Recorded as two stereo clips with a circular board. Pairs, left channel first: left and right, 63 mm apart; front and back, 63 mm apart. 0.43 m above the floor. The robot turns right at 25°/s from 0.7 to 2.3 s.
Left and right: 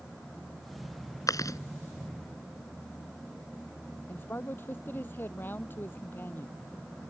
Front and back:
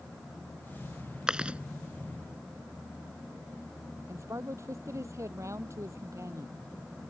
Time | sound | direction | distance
1.3 | chewing | 105° left | ?
4.1 | a man speaking | 145° left | ?